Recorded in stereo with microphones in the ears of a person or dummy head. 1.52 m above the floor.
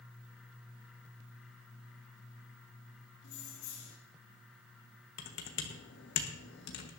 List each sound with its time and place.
3.2 s keys jangling: 55° left (ahead or behind), 2.5 m
5.2 s typing on a keyboard: 55° left (ahead or behind), 1.4 m